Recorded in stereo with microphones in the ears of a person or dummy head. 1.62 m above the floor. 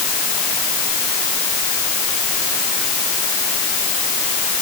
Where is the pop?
No pop in this recording.